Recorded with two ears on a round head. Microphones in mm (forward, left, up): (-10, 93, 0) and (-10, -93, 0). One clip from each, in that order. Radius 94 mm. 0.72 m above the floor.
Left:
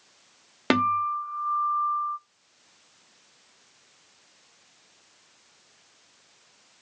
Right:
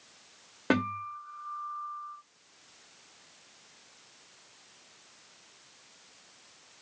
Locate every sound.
0.7 s a guitar: 75° left (ahead or behind), 0.7 m